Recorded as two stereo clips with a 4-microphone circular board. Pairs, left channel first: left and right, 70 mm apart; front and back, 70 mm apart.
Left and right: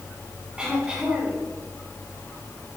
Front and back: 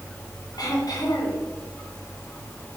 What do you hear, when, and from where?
0.6 s throat clearing: 15° right, 5 m